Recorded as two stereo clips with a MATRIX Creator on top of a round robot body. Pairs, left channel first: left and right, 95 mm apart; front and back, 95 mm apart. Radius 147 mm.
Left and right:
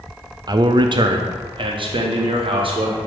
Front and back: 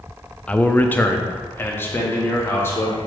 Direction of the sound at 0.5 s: 70° right.